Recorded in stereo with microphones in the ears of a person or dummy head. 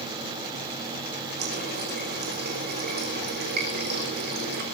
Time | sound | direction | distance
1.4 | a running tap | 50° right (ahead or behind) | 4.5 m